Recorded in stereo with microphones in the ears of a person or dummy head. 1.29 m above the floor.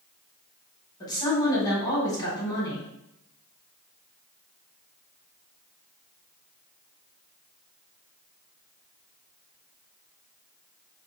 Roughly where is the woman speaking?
Left.